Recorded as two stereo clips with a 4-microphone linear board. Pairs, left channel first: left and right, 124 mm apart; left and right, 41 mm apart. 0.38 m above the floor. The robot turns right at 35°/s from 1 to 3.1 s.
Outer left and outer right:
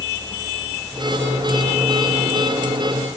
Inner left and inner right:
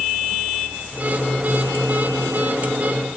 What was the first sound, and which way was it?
Only background noise.